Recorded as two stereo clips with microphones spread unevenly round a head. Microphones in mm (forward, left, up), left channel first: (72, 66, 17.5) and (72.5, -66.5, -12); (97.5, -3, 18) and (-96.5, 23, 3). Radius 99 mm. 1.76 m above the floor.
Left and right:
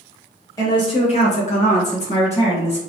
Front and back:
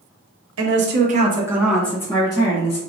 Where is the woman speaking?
155° left, 1.2 m; by 2.8 s 55° left, 2 m.